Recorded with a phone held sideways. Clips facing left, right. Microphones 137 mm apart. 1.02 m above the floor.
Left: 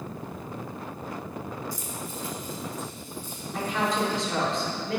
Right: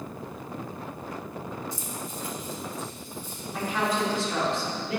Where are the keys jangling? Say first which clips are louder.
Even; 20° right (ahead or behind), 0.8 m; by 4.2 s 55° right (ahead or behind), 4.5 m.